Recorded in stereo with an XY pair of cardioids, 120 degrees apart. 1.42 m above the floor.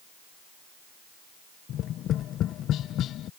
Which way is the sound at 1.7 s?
65° left.